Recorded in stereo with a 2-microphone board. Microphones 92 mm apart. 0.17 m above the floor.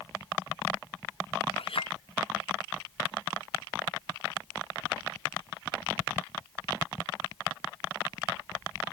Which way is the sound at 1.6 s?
75° left (ahead or behind).